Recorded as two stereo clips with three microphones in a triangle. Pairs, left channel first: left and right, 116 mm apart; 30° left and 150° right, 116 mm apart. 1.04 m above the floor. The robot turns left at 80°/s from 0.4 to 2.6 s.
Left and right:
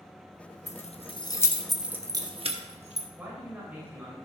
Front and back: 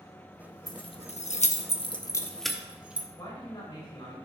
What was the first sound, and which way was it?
Keys jangling, 85° left.